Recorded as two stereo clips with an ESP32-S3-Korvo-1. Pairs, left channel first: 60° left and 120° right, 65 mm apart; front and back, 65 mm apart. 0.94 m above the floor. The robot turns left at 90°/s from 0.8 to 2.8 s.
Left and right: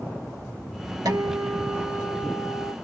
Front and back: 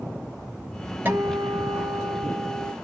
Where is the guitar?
120° right, 1.0 m; by 2.7 s 90° left, 1.0 m.